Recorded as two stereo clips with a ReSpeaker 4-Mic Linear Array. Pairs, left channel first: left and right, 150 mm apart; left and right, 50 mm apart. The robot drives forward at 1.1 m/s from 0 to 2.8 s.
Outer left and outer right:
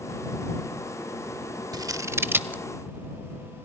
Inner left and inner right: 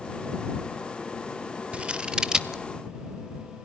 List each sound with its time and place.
1.7 s scissors: 30° right (ahead or behind), 0.5 m; by 2.6 s 10° right (ahead or behind), 1.2 m